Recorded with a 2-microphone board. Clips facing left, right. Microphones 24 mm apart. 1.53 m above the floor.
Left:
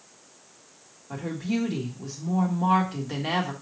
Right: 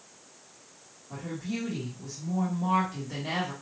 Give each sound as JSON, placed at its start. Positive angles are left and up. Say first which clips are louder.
{"t": 1.1, "sound": "a woman speaking", "louder": "left 6 dB", "side_deg": 70, "distance_m": 1.6}